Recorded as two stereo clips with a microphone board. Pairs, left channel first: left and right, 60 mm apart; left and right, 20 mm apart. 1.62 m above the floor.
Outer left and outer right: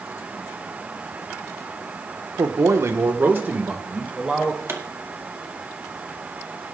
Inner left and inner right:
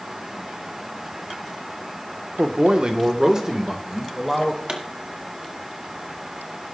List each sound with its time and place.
2.4 s a man speaking: 70° right (ahead or behind), 1.3 m; by 4.6 s 10° right (ahead or behind), 2.5 m
4.7 s a pop: 45° right (ahead or behind), 2.0 m